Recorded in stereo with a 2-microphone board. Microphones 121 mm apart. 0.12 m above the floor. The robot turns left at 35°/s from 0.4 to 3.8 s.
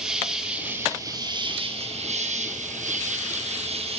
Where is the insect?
5° right, 4.5 m; by 4.0 s 120° right, 4.5 m.